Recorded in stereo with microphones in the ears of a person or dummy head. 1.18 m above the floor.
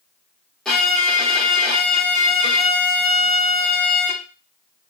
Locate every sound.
0.7 s a violin: 5° left (ahead or behind), 1.0 m